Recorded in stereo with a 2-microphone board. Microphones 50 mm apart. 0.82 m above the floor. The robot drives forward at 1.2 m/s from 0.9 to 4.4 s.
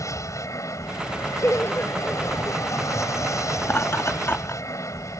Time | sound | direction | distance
0.0 | an aircraft | 75° left (ahead or behind) | ?
1.4 | laughter | 45° left (ahead or behind) | ?
3.6 | laughter | 60° left (ahead or behind) | ?